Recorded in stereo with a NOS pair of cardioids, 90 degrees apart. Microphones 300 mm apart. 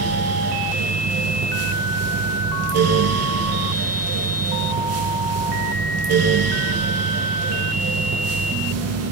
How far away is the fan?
About 0.8 m.